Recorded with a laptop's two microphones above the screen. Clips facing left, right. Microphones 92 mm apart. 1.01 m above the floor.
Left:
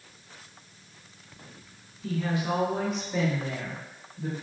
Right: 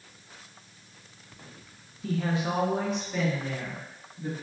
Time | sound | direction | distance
2.0 | a woman speaking | 40° right (ahead or behind) | 0.7 m